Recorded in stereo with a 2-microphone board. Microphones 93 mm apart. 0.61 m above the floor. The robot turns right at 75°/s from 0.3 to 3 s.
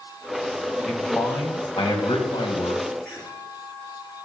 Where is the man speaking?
5° left, 3.5 m; by 2.8 s 155° left, 3.5 m.